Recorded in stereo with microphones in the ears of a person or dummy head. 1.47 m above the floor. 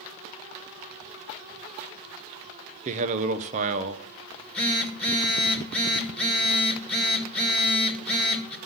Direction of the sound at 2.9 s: 40° right (ahead or behind).